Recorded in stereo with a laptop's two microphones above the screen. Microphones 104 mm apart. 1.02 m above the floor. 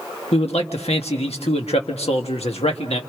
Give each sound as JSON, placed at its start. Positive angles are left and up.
{"t": 0.3, "sound": "a man speaking", "side_deg": 80, "distance_m": 1.5}